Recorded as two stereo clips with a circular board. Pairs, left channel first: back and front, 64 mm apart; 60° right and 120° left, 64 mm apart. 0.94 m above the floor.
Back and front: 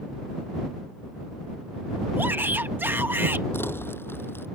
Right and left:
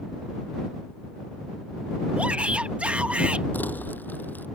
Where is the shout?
50° left.